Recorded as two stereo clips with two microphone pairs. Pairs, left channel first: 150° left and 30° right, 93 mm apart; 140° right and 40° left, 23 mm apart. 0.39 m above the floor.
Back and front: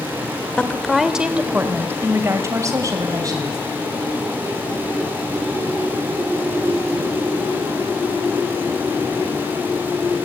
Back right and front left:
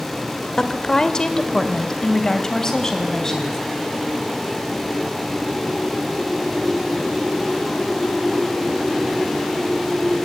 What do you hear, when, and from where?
0.6 s a woman speaking: 140° right, 1.5 m; by 3.6 s 75° right, 3.5 m